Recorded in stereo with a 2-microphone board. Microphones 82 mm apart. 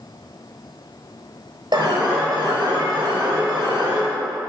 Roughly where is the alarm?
Right.